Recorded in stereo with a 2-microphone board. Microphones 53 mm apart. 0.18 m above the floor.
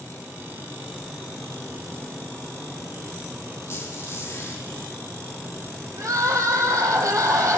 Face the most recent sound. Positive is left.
turn(degrees=-80)